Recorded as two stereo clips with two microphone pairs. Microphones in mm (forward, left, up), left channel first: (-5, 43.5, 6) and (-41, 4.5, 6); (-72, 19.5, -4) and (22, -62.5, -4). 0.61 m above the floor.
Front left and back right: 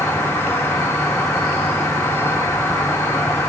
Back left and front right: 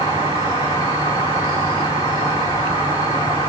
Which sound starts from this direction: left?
An insect, at 0.0 s.